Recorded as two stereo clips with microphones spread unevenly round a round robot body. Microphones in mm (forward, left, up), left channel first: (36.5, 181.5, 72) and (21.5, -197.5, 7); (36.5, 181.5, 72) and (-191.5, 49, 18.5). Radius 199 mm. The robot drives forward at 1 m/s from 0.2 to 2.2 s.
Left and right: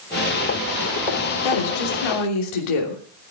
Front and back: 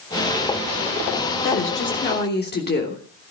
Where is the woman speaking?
70° left, 3 m; by 3.3 s 85° left, 3 m.